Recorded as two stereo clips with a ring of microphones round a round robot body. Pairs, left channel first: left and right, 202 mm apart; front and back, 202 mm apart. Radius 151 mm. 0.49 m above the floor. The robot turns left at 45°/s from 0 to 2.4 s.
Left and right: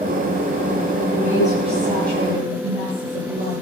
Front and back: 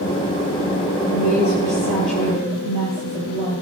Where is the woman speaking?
5° right, 9.5 m; by 3.6 s 60° right, 9.5 m.